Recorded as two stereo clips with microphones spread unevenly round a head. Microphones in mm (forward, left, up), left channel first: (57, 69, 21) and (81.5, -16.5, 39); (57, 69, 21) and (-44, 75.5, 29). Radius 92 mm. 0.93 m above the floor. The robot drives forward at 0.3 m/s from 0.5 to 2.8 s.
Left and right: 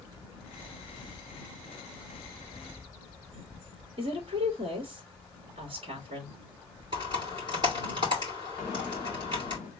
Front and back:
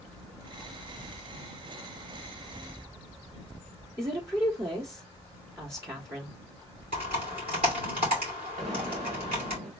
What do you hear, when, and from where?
4.0 s a woman speaking: 110° right, 1.9 m
6.9 s typing on a keyboard: 140° right, 2.5 m
8.6 s an explosion: 175° left, 1.9 m